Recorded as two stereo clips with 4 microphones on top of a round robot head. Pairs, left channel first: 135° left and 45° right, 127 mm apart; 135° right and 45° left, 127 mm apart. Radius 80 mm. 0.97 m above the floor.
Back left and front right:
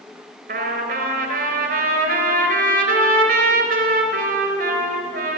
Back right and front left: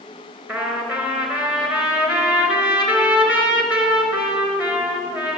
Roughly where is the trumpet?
Ahead right.